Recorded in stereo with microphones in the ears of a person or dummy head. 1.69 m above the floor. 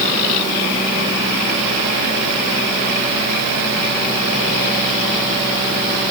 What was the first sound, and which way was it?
Only background noise.